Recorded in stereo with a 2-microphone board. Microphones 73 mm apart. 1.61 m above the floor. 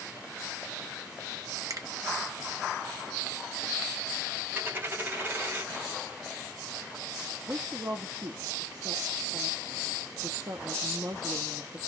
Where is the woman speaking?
50° right (ahead or behind), 0.8 m.